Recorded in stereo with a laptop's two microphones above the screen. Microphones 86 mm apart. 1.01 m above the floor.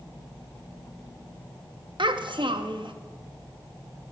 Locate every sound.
2.0 s a child speaking: 70° right (ahead or behind), 0.6 m